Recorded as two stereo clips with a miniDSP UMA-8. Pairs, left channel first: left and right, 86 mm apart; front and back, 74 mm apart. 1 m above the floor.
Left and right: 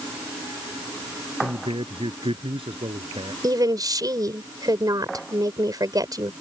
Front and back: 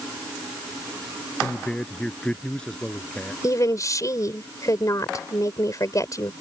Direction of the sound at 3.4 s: 45° right.